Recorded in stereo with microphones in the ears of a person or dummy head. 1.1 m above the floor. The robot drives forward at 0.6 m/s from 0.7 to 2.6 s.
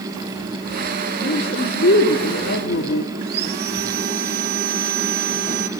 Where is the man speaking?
45° left (ahead or behind), 3.5 m; by 3.1 s 60° left (ahead or behind), 3 m.